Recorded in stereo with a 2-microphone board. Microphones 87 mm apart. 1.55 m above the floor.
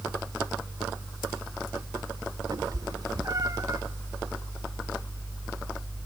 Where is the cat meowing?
45° right (ahead or behind), 1.8 m; by 3.8 s 35° right (ahead or behind), 1.3 m.